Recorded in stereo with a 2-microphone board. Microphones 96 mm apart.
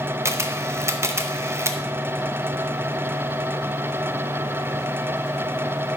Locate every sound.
0.2 s a camera shutter: 30° right (ahead or behind), 0.6 m